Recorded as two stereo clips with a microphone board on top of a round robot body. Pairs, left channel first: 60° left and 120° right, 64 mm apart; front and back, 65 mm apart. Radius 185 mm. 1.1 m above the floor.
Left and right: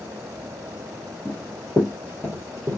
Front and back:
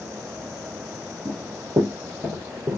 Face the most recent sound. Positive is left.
turn(degrees=-150)